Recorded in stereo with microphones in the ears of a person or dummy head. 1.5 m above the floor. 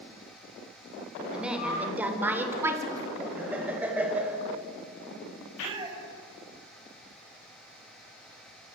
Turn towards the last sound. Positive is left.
turn(degrees=-30)  # may be behind; listen again after turning